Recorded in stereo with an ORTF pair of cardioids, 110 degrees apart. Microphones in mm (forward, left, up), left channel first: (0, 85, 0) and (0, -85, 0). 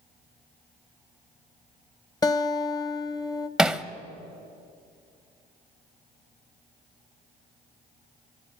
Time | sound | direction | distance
2.2 | a guitar | 20° left | 1.0 m
3.6 | hammering | 5° right | 0.9 m